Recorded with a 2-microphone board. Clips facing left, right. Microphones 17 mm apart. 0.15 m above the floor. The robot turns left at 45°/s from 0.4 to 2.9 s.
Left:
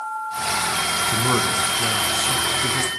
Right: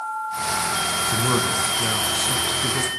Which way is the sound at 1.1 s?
20° left (ahead or behind).